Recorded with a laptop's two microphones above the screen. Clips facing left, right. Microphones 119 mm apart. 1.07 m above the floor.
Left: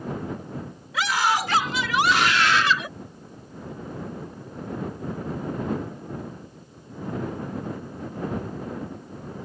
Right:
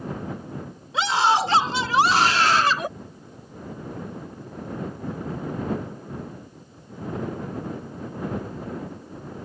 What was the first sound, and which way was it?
A scream, 30° right (ahead or behind).